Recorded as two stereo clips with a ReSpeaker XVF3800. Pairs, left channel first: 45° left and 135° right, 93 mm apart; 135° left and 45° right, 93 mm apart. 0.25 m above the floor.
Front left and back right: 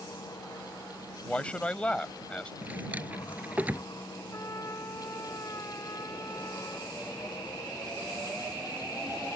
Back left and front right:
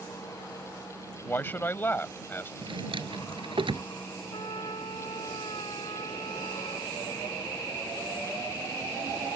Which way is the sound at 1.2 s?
105° left.